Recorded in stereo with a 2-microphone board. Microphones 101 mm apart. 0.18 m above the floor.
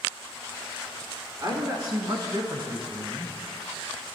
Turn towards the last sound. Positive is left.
turn(degrees=-20)  # may be behind; listen again after turning